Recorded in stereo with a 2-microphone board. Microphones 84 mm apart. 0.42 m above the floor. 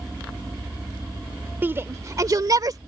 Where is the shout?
25° right (ahead or behind); by 2.8 s 50° right (ahead or behind).